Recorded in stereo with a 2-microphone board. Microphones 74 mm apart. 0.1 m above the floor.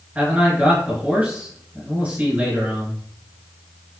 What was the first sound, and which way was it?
A man speaking, 20° right (ahead or behind).